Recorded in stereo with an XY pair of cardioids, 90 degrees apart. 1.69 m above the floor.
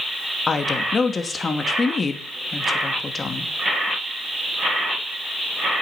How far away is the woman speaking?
About 2.5 m.